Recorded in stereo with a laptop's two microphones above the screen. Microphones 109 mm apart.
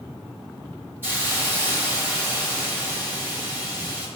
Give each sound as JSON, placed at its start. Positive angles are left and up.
{"t": 1.0, "sound": "a hiss", "side_deg": -20, "distance_m": 1.9}